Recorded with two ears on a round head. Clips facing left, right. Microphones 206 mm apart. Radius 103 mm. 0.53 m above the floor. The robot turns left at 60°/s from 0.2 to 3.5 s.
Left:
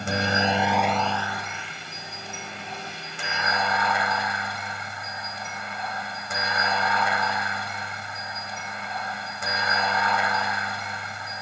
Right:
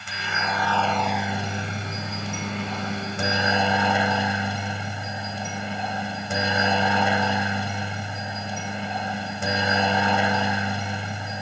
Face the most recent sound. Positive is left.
turn(degrees=-150)